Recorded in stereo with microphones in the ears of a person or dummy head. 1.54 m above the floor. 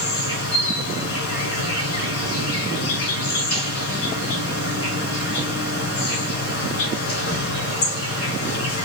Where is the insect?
70° left (ahead or behind), 2 m.